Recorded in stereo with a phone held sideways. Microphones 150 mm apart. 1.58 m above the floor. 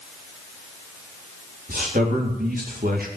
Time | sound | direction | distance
1.7 | a man speaking | 85° right | 3.5 m